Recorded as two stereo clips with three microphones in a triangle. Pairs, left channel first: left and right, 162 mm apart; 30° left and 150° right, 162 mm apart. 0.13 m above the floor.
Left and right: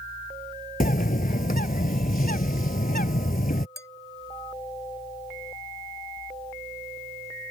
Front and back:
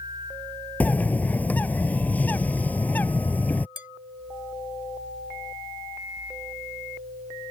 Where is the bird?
110° left.